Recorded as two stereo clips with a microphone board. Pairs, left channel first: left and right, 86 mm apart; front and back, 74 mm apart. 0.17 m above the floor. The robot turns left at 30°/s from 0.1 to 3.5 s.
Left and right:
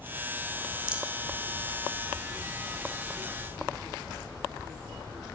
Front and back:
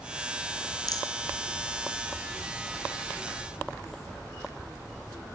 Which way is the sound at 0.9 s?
10° right.